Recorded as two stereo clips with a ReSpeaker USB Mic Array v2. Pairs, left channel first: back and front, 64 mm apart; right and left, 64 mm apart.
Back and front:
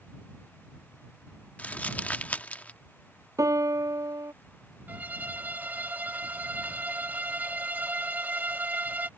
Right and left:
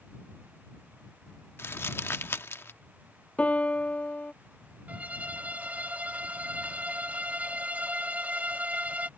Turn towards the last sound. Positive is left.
turn(degrees=40)